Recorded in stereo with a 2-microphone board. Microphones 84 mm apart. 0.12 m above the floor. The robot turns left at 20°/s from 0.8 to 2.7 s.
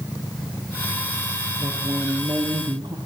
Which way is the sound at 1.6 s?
50° right (ahead or behind).